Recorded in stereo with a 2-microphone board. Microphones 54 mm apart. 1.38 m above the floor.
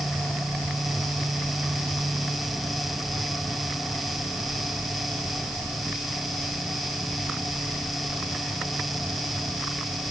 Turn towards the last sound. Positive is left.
No sound to turn to.